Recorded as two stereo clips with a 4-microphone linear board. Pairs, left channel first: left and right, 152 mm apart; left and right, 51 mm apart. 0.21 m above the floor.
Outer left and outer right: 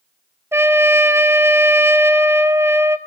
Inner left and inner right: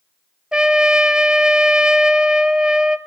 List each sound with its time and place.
0.5 s a trumpet: 15° right (ahead or behind), 1.0 m